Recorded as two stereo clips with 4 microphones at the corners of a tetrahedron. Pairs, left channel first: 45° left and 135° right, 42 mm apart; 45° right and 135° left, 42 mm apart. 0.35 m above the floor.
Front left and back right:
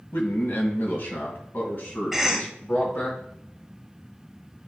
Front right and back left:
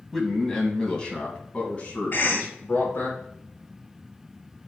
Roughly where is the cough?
Ahead right.